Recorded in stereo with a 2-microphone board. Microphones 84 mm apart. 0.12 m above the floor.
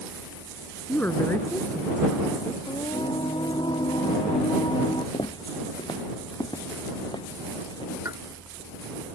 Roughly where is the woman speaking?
Centre.